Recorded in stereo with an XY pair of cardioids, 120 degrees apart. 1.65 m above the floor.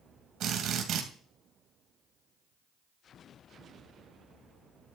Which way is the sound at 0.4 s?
70° right.